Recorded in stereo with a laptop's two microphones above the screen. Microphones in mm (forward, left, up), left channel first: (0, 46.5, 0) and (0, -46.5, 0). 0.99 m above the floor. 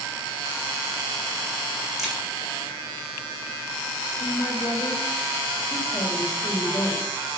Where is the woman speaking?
35° left (ahead or behind), 1.7 m.